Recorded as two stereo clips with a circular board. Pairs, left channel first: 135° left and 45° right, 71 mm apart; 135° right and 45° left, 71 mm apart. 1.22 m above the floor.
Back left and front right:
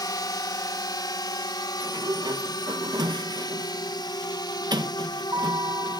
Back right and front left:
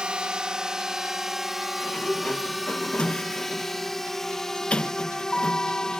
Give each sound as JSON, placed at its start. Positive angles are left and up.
{"t": 0.0, "sound": "a drone", "azimuth_deg": 120}
{"t": 1.8, "sound": "a sliding door", "azimuth_deg": -60}